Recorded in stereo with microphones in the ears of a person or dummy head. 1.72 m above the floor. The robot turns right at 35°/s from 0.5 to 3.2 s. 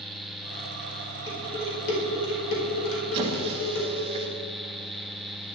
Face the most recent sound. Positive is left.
turn(degrees=-35)  # may be behind; listen again after turning